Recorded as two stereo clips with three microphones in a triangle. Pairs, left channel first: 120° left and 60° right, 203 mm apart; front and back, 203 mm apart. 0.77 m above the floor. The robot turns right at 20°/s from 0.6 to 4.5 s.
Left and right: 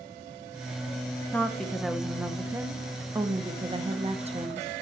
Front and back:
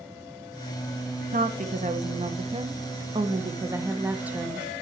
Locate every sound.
1.3 s a woman speaking: 160° right, 0.9 m; by 4.7 s 95° right, 0.9 m